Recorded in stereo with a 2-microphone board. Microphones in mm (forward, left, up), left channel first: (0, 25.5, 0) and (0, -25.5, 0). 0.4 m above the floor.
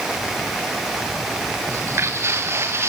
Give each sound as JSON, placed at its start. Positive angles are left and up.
{"t": 1.7, "sound": "footsteps", "side_deg": -60, "distance_m": 1.6}